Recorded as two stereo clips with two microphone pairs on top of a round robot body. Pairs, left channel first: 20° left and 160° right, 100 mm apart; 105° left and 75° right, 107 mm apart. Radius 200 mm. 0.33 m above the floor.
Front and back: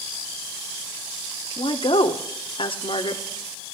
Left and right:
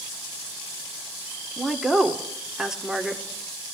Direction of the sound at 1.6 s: 15° left.